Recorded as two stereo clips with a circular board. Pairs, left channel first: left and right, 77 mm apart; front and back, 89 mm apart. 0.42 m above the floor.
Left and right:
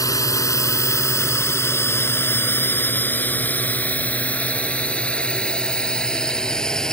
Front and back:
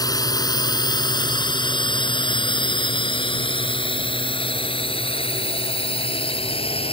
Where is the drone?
45° left; by 6.9 s 10° left.